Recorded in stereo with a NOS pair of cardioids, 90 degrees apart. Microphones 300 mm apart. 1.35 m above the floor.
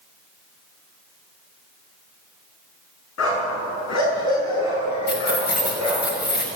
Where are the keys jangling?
35° left, 6 m.